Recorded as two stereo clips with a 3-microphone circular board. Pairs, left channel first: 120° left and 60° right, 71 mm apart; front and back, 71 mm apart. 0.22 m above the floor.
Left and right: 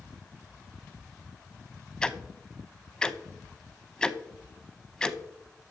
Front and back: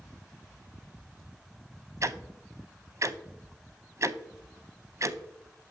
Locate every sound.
2.0 s ticking: 165° right, 0.5 m